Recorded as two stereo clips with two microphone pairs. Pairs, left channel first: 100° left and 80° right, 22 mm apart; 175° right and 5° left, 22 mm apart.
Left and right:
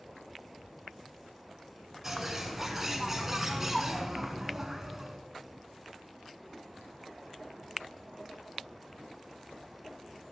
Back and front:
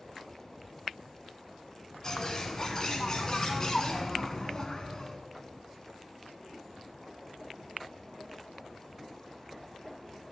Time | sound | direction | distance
2.0 | a bird | 145° right | 0.9 m